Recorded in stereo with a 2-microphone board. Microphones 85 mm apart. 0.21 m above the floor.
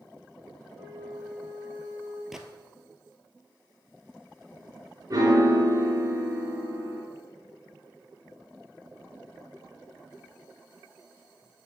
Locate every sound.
0.7 s a flute: 20° right (ahead or behind), 4 m
2.3 s a gunshot: 5° right (ahead or behind), 0.9 m
5.1 s a piano: 45° right (ahead or behind), 3 m